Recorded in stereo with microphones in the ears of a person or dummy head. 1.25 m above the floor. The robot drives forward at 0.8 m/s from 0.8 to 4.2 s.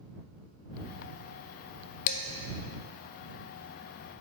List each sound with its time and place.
2.1 s dishes clattering: 55° left (ahead or behind), 0.5 m; by 2.2 s 60° left (ahead or behind), 0.5 m